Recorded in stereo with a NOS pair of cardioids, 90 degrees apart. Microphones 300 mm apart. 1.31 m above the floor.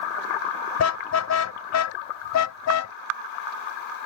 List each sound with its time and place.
0.8 s a car horn: 55° left; by 3.0 s 70° left